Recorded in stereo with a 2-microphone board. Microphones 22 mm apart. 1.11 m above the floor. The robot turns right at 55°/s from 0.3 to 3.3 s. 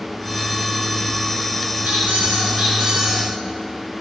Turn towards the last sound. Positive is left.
turn(degrees=-10)